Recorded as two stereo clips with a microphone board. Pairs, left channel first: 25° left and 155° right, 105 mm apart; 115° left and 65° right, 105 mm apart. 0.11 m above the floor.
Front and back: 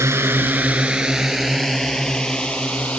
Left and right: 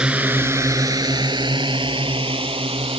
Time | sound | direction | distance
0.0 | a drone | 140° right | ?